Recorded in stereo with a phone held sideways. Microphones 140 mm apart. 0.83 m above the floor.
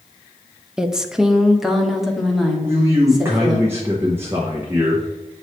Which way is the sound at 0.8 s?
5° right (ahead or behind).